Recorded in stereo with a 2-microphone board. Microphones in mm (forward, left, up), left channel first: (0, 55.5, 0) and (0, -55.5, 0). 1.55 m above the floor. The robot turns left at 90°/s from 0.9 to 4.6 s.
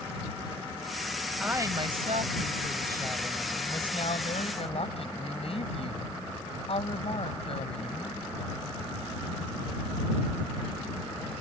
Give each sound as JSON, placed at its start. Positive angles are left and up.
{"t": 1.4, "sound": "a woman speaking", "azimuth_deg": -10}